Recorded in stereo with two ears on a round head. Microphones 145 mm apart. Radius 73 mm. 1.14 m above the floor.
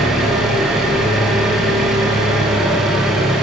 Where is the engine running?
5° right (ahead or behind), 7 m.